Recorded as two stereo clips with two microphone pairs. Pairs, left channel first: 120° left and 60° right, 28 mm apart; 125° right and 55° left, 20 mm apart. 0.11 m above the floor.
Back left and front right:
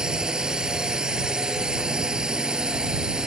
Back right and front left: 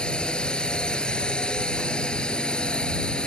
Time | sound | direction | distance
0.0 | a drone | 110° right | ?